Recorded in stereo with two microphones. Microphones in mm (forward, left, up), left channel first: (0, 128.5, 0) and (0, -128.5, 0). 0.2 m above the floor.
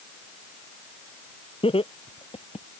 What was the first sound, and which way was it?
Laughter, 20° left (ahead or behind).